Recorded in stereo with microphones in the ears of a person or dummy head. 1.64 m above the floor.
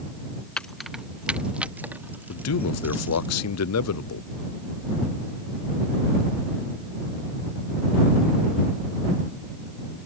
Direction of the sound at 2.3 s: 80° left.